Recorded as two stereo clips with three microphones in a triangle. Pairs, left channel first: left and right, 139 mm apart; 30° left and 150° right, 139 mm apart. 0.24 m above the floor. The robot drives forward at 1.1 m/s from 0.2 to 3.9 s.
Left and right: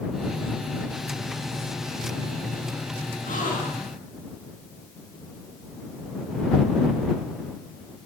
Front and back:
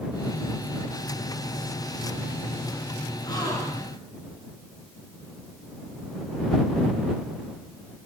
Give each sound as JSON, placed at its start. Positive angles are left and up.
{"t": 3.2, "sound": "a gasp", "azimuth_deg": 90, "distance_m": 4.0}